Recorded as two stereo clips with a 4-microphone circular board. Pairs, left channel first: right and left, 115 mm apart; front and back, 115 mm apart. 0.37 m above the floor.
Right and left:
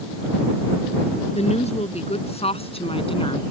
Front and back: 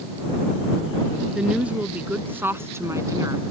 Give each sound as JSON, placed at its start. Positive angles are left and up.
{"t": 1.4, "sound": "a woman speaking", "azimuth_deg": -100}